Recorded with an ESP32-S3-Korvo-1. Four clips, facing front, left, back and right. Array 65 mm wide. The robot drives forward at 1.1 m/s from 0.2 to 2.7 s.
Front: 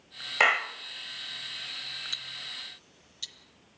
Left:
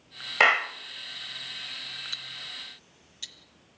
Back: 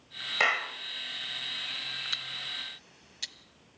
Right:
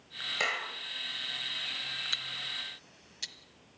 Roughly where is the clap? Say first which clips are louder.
Left 12 dB, front 3 dB; ahead left.